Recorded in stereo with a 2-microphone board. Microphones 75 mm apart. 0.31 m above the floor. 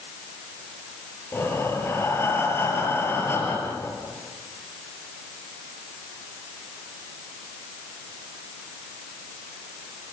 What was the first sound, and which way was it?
Breathing, 30° left (ahead or behind).